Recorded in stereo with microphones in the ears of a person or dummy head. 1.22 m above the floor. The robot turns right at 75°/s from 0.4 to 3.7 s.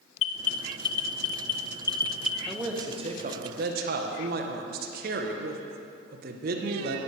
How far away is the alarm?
About 0.6 m.